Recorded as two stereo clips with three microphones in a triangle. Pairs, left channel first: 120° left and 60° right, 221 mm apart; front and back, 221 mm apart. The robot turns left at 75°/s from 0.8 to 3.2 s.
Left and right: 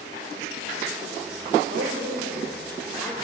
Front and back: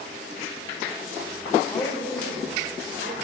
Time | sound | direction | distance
1.7 | a woman speaking | 60° right | 2.5 m